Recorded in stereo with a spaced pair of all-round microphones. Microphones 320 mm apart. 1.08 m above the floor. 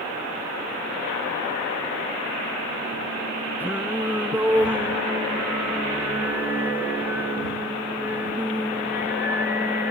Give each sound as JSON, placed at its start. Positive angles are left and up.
{"t": 3.6, "sound": "singing", "side_deg": -5}